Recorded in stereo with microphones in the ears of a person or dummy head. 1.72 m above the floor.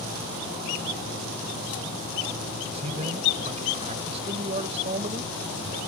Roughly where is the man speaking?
Right.